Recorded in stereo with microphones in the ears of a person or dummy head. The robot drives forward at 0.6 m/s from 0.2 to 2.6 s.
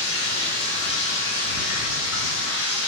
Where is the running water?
65° left (ahead or behind), 3.5 m; by 2.9 s 75° left (ahead or behind), 3.5 m.